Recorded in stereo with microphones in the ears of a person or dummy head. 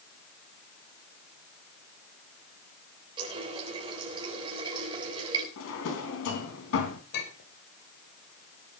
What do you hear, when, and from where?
3.2 s a running tap: 30° right (ahead or behind), 3.5 m
5.6 s a drawer: 75° left (ahead or behind), 3 m
7.1 s a clink: 65° left (ahead or behind), 4 m